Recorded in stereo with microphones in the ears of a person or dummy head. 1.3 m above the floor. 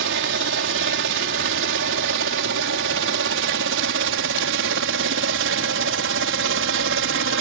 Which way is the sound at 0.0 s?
60° right (ahead or behind).